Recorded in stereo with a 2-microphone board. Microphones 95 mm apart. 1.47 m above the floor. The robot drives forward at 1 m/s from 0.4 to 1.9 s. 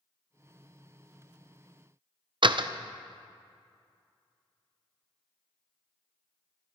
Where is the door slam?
60° right (ahead or behind), 0.5 m.